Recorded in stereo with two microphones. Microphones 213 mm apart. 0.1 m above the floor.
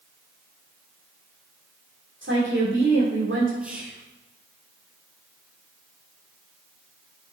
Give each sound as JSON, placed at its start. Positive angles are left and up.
{"t": 2.2, "sound": "a woman speaking", "side_deg": -65, "distance_m": 4.5}
{"t": 3.6, "sound": "whispering", "side_deg": -5, "distance_m": 3.0}